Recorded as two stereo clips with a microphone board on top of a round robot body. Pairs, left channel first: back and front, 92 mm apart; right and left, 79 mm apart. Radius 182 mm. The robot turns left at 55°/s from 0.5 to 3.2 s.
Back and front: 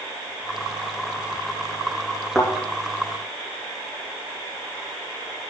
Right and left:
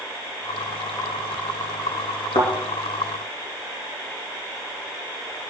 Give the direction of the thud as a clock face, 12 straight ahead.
3 o'clock.